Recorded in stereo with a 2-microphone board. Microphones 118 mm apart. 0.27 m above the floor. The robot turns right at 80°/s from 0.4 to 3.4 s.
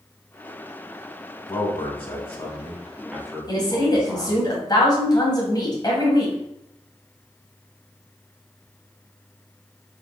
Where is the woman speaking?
35° left (ahead or behind), 1.7 m.